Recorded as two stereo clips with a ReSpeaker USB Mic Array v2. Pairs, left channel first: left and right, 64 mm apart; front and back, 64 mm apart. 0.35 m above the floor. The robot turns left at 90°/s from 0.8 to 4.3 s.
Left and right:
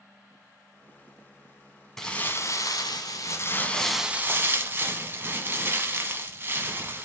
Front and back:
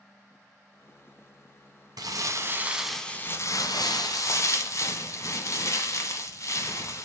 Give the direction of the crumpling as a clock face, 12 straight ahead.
6 o'clock.